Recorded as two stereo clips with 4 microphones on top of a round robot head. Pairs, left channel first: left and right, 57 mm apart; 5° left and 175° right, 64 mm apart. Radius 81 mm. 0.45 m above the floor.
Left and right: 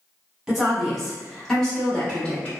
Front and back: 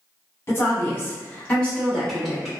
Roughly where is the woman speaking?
Ahead.